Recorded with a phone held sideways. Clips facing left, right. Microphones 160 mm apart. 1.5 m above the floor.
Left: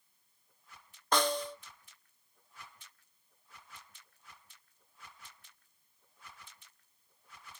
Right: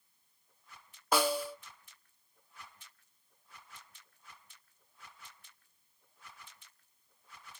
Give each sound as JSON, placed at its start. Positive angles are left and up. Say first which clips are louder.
{"t": 1.1, "sound": "a snare drum", "louder": "right 1 dB", "side_deg": -5, "distance_m": 0.6}